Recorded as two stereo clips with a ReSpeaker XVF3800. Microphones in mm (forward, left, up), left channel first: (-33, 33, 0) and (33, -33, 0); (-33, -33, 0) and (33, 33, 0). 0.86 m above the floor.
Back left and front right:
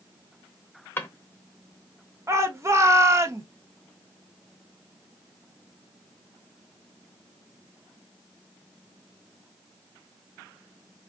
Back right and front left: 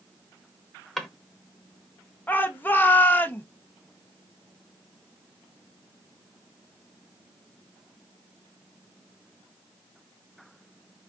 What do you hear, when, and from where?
1.0 s a drawer: 140° left, 0.5 m
2.3 s a shout: 80° right, 0.6 m